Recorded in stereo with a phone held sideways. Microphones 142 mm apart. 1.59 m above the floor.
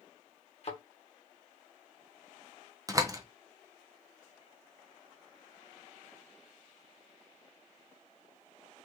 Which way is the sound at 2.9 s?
25° right (ahead or behind).